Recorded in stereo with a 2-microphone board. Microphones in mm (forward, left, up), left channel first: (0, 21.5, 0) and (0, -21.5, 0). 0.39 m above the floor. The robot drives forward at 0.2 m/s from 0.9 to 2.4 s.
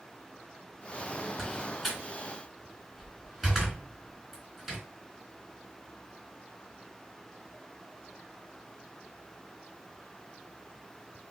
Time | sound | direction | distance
1.4 | a door slam | 10° right (ahead or behind) | 2.5 m